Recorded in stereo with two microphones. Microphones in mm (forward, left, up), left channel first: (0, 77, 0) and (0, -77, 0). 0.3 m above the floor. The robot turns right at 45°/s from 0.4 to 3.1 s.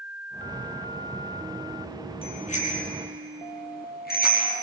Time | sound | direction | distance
2.2 | a bicycle bell | 35° left (ahead or behind) | 6.5 m